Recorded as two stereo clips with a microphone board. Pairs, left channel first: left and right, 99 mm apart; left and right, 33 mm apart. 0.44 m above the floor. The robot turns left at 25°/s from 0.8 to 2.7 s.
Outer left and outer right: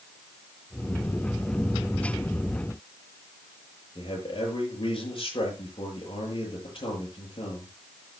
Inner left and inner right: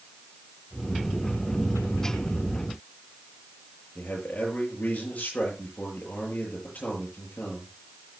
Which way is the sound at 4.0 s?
55° left (ahead or behind).